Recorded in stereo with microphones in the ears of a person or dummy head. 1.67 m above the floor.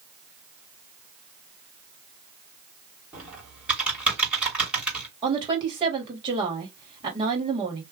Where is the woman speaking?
15° right (ahead or behind), 1.8 m.